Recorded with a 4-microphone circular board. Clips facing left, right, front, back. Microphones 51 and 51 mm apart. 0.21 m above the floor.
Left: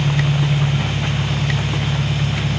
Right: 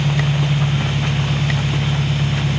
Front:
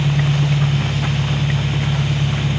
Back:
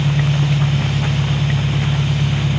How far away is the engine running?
About 1.2 m.